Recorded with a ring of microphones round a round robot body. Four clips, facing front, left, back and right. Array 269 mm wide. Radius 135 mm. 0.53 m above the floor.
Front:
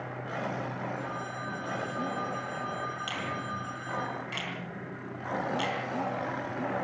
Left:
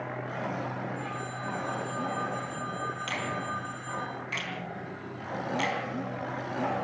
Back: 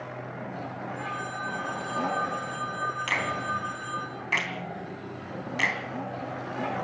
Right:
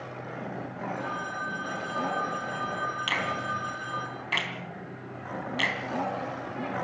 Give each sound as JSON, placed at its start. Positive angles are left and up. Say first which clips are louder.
{"t": 0.9, "sound": "a phone ringing", "louder": "right 3 dB, back 2 dB", "azimuth_deg": -150, "distance_m": 9.5}
{"t": 3.1, "sound": "a finger snap", "louder": "right 3 dB, back 5 dB", "azimuth_deg": -145, "distance_m": 3.0}